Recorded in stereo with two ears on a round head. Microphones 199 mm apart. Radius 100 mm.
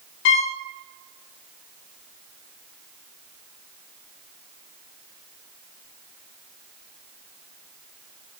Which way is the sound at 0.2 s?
50° left (ahead or behind).